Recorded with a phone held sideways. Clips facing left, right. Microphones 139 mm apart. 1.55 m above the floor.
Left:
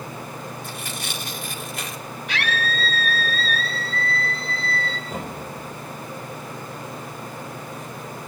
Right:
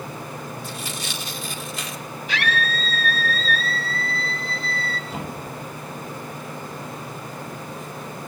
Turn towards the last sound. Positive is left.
turn(degrees=50)  # may be behind; listen again after turning